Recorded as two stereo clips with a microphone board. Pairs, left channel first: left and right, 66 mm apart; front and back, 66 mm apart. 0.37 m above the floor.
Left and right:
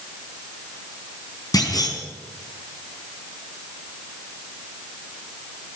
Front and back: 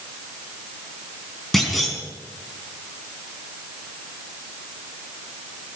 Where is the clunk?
85° left, 4 m.